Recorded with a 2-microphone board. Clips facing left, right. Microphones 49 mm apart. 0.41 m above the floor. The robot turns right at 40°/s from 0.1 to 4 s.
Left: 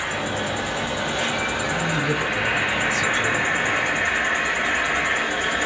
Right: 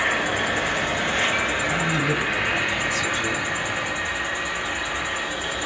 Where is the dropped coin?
I don't hear a dropped coin.